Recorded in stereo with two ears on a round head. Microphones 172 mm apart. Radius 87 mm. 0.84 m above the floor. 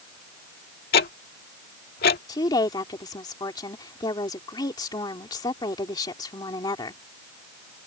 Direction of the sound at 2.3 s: 20° left (ahead or behind).